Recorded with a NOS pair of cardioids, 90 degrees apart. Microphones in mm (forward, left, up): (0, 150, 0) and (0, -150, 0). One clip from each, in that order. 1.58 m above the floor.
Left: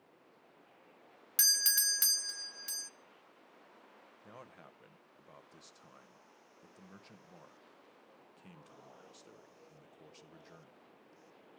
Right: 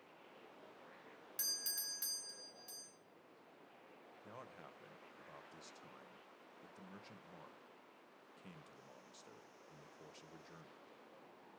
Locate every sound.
1.4 s a doorbell: 65° left, 0.5 m
4.2 s a man speaking: 10° left, 1.1 m